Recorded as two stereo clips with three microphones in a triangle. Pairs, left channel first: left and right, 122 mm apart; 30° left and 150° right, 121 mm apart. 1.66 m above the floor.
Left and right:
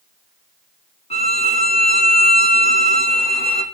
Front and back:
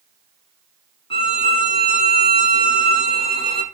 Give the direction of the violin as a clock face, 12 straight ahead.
10 o'clock.